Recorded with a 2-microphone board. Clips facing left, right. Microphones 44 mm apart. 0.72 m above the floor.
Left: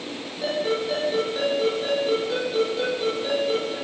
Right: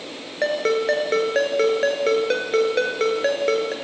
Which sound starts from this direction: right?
A ringtone, at 0.4 s.